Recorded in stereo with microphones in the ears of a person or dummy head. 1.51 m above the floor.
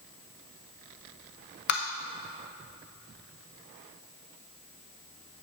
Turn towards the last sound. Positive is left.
turn(degrees=50)  # may be behind; listen again after turning